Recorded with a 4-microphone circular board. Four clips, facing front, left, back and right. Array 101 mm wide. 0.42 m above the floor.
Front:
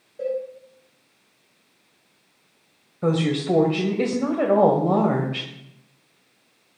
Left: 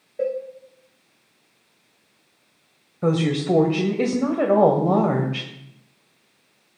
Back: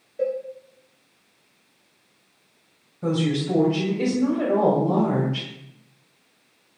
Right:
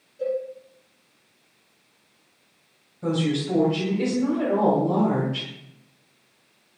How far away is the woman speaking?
About 2.5 m.